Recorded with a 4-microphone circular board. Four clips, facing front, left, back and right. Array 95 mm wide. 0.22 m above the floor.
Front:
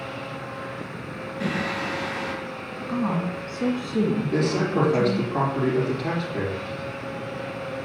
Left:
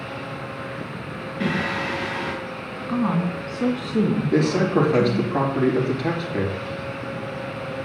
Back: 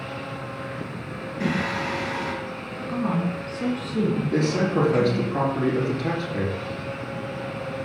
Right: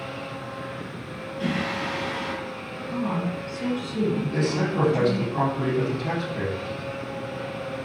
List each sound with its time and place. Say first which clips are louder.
1.4 s singing: left 3 dB, back 2 dB; 105° left, 4 m
2.9 s a woman speaking: left 5 dB, even; 80° left, 1.9 m
4.3 s a man speaking: left 5 dB, back 2 dB; 95° left, 3.5 m